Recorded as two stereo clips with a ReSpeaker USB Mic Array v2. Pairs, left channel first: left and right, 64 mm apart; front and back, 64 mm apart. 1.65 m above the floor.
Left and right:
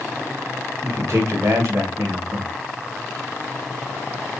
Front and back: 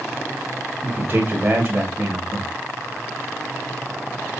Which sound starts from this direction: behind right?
A man speaking, at 0.8 s.